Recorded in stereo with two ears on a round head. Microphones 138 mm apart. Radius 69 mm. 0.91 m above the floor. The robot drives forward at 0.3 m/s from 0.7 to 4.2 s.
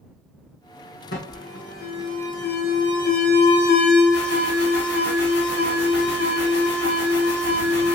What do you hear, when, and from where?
1.1 s an alarm: 80° left, 3 m; by 8.0 s 75° left (ahead or behind), 3 m